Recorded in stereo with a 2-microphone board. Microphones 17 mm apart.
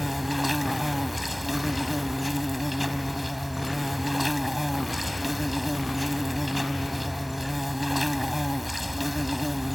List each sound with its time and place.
0.0 s an insect: 5° right (ahead or behind)